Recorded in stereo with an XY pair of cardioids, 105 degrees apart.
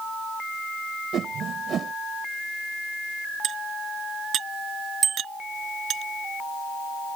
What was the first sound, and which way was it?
A whoosh, 55° right.